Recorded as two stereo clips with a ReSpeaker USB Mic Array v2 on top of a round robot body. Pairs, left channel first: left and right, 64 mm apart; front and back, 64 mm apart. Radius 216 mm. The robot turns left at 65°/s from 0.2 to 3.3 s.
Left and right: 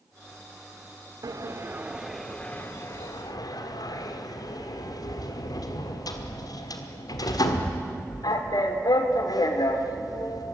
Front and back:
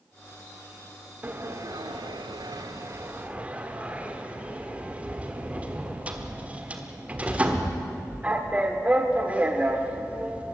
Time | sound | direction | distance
1.2 | a sliding door | 120° right | 1.5 m